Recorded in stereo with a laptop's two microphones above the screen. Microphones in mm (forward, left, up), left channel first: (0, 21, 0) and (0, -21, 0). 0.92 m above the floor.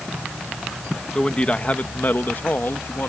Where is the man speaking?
20° left (ahead or behind); by 3.1 s 60° left (ahead or behind).